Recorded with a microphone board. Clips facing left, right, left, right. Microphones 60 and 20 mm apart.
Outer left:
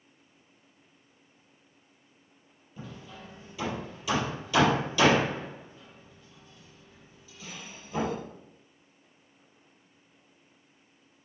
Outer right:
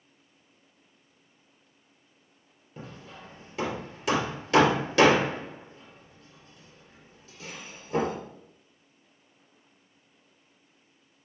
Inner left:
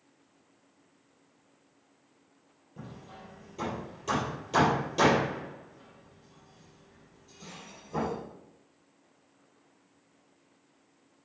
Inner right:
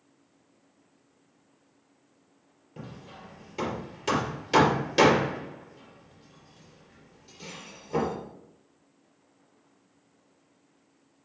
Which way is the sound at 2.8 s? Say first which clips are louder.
Even, inner right 2 dB; 75° right (ahead or behind).